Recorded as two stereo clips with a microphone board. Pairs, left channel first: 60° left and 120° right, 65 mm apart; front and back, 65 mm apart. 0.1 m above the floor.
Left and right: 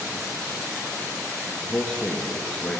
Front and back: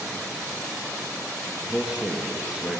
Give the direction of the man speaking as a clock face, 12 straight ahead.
8 o'clock.